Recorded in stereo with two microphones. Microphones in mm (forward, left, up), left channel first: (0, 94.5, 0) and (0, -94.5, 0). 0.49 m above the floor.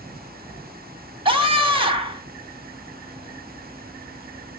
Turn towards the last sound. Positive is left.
turn(degrees=-30)  # may be behind; listen again after turning